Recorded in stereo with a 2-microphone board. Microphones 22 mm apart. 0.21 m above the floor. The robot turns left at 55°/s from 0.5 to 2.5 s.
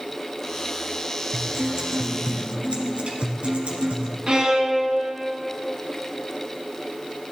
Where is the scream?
No scream in this recording.